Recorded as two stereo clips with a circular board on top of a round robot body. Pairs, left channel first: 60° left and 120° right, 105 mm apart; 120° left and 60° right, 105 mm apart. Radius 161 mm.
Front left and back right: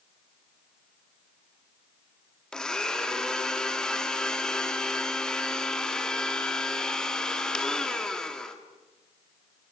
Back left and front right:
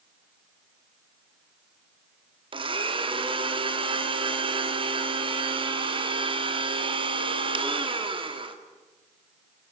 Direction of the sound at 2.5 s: 25° right.